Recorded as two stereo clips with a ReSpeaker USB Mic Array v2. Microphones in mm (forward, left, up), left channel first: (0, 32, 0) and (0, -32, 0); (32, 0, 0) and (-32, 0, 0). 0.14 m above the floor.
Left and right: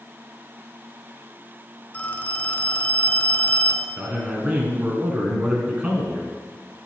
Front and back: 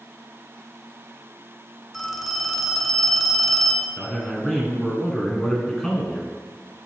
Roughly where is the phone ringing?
Left.